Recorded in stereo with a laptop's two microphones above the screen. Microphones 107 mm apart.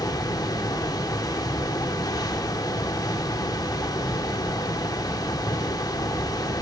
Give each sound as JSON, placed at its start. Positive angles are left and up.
{"t": 0.0, "sound": "a fan", "side_deg": 35, "distance_m": 0.7}